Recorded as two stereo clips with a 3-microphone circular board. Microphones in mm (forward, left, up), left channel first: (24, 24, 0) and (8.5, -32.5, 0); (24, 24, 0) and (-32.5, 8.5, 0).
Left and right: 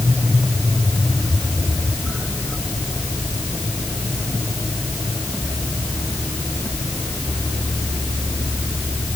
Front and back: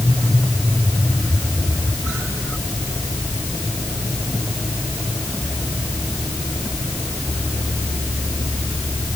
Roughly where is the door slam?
I don't hear a door slam.